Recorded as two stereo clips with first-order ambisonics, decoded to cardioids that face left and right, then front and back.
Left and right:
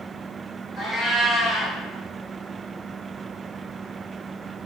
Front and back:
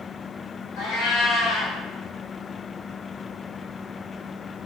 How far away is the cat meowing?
About 1.9 m.